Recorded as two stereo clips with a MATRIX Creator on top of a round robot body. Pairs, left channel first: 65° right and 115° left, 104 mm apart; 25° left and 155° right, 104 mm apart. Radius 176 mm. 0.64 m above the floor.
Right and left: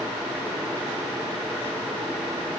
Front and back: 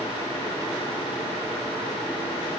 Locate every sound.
Only background noise.